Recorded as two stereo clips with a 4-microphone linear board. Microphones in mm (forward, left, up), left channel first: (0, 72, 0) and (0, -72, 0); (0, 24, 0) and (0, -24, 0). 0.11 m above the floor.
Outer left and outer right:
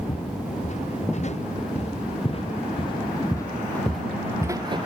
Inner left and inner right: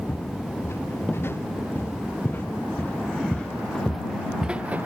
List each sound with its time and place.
0.1 s footsteps: 60° left (ahead or behind); by 4.9 s 40° right (ahead or behind)